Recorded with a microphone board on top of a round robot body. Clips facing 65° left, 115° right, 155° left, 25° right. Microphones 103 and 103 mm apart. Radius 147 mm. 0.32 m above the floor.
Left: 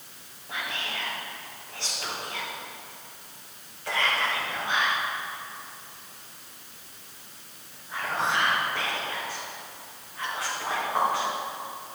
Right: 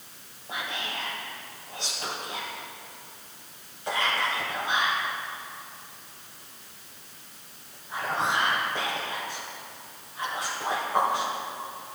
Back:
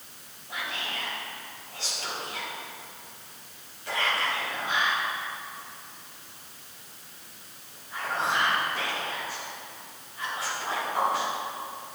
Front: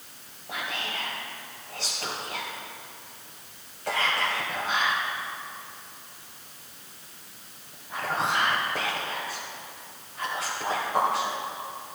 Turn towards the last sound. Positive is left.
turn(degrees=-45)